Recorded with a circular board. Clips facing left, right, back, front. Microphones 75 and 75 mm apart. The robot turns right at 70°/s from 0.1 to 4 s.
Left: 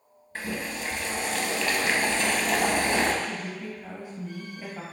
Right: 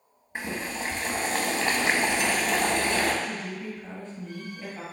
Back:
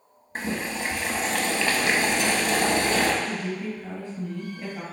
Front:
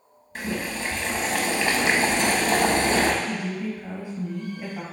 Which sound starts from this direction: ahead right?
A woman speaking, at 3.2 s.